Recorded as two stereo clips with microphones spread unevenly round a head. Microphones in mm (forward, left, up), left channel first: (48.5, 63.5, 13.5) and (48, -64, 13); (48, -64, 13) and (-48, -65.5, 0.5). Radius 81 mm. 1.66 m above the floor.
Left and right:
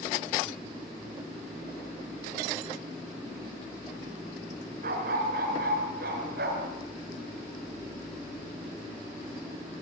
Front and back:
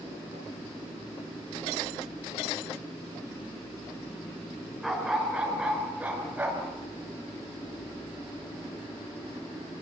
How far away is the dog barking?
About 5 m.